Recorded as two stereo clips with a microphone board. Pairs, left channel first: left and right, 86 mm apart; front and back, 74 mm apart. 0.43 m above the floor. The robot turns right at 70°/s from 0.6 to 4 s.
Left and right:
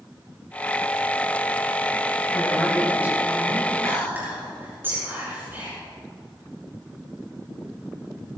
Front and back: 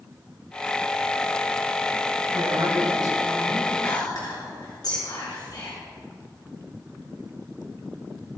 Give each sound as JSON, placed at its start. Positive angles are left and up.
{"t": 2.3, "sound": "a woman speaking", "azimuth_deg": 150, "distance_m": 5.0}
{"t": 3.8, "sound": "whispering", "azimuth_deg": -40, "distance_m": 5.5}